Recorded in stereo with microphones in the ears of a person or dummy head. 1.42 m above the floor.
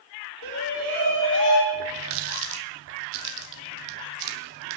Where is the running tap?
60° right (ahead or behind), 0.7 m.